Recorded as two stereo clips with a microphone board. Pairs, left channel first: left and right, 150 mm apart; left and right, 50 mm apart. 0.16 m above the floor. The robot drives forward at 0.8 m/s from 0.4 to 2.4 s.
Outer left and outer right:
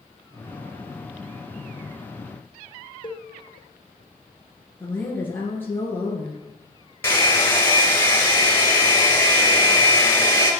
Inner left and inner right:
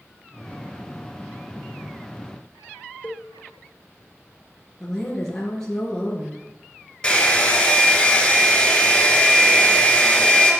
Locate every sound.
3.0 s a cowbell: 35° left (ahead or behind), 1.3 m
4.8 s a woman speaking: 15° left (ahead or behind), 2.5 m
7.0 s a hair dryer: 15° left (ahead or behind), 2.5 m